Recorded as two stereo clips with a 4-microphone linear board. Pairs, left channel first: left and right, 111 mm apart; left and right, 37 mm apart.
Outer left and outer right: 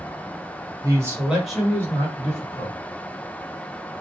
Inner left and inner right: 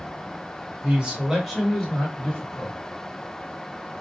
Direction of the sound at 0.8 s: 30° right (ahead or behind).